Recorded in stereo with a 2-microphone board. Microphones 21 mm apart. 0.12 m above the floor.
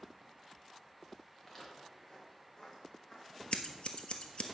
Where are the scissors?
60° left (ahead or behind), 0.9 m.